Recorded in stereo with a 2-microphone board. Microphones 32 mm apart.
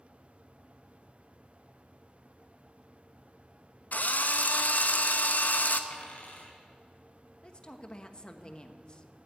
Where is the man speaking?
30° left (ahead or behind), 1.0 m.